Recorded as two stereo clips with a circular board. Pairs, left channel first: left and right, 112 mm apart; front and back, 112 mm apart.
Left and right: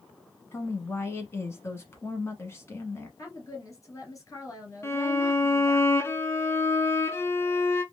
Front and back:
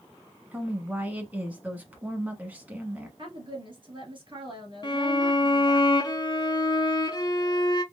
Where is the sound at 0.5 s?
125° left, 1.2 m.